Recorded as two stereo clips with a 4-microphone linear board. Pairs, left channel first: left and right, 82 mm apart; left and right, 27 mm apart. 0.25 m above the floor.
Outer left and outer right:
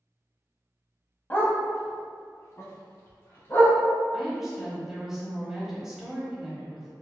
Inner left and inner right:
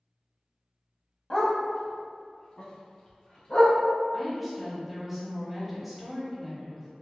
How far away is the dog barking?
About 0.6 m.